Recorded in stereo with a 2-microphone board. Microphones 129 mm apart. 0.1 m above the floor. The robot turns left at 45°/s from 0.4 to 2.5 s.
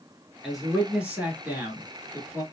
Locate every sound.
0.4 s a man speaking: centre (ahead or behind), 1.2 m; by 2.4 s 20° right (ahead or behind), 1.2 m